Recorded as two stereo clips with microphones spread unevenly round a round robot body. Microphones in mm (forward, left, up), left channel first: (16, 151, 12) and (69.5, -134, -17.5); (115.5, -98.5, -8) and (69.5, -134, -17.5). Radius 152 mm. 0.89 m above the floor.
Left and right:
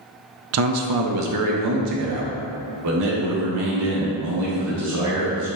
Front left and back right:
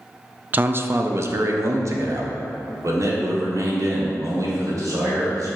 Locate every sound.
0.5 s a man speaking: 95° right, 0.5 m; by 5.5 s 120° right, 3.5 m